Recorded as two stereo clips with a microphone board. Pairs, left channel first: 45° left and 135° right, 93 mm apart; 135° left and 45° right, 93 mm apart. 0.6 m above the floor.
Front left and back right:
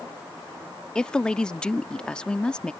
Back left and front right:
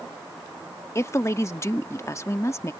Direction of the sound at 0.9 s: 115° left.